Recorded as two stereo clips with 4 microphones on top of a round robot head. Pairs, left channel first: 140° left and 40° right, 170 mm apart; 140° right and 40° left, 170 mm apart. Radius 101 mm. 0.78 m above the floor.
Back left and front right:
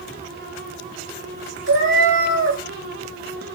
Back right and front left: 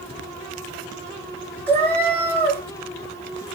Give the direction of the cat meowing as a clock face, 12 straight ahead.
2 o'clock.